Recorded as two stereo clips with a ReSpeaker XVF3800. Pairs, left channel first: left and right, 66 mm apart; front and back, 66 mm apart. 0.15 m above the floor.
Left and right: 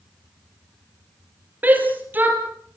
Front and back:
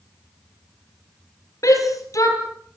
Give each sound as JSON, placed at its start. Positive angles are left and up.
{"t": 1.6, "sound": "a shout", "azimuth_deg": -30, "distance_m": 4.5}